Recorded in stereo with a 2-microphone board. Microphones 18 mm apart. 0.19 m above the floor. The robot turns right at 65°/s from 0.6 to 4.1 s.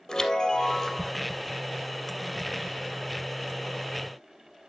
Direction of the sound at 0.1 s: 145° left.